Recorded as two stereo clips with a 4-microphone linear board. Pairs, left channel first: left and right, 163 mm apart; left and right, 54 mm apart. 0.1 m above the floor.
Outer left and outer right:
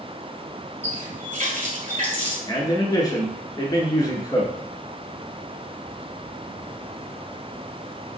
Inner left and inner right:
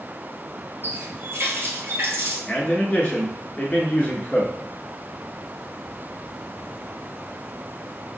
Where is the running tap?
50° right (ahead or behind), 1.4 m.